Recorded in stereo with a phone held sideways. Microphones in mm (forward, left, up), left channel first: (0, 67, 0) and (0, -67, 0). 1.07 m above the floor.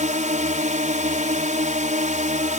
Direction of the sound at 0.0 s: 65° right (ahead or behind).